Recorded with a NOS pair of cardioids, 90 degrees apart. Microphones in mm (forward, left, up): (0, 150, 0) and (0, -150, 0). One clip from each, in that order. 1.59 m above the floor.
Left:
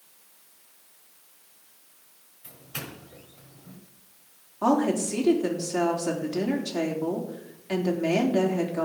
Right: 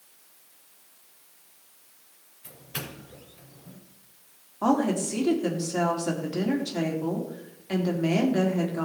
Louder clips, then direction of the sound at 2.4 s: Right 1 dB; 5° right.